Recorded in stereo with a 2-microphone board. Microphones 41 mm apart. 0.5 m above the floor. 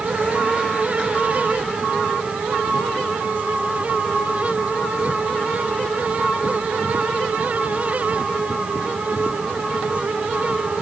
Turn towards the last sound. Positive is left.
No sound to turn to.